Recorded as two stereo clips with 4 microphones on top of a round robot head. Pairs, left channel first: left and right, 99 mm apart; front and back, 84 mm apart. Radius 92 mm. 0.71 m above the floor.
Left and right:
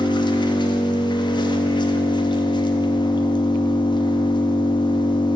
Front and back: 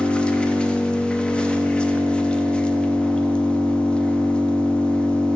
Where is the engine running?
75° left, 0.9 m.